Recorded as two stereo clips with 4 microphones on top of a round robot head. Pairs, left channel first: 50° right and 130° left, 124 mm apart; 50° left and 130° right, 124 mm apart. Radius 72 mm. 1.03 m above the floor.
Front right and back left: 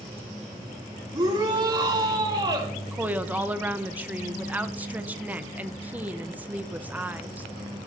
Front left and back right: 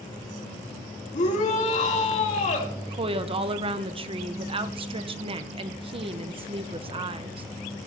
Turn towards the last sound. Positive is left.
turn(degrees=-155)